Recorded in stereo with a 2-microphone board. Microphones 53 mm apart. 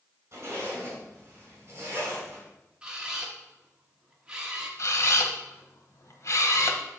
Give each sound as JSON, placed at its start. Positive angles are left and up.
{"t": 0.3, "sound": "a zipper", "side_deg": -45, "distance_m": 4.0}
{"t": 2.8, "sound": "a camera shutter", "side_deg": -15, "distance_m": 1.2}
{"t": 4.8, "sound": "a camera shutter", "side_deg": 65, "distance_m": 0.9}